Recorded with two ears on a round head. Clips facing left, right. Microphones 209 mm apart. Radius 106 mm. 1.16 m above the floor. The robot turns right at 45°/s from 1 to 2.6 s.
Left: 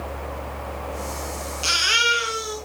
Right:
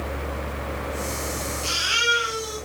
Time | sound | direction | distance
1.6 | a baby crying | 105° left | 7 m